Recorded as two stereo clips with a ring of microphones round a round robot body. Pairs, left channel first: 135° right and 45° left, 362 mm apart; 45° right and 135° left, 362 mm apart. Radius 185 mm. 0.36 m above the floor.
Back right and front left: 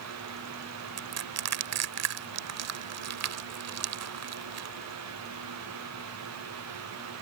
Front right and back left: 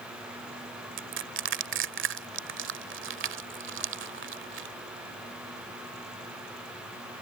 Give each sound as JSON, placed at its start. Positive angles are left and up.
{"t": 1.0, "sound": "crushing", "azimuth_deg": 85}